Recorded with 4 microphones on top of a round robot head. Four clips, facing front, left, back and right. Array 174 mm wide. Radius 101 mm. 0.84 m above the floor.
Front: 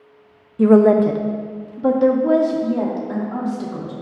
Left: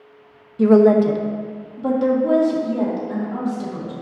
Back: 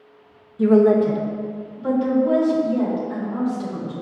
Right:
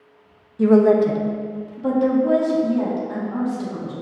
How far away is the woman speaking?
About 0.5 m.